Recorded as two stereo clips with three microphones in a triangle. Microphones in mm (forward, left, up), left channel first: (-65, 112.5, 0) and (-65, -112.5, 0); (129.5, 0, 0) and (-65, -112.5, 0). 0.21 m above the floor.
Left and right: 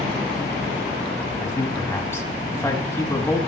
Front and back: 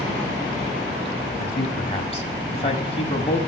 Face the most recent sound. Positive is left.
turn(degrees=25)